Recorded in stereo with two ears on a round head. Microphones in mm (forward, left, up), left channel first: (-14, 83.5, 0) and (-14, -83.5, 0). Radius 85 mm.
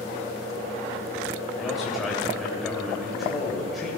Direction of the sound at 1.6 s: Centre (ahead or behind).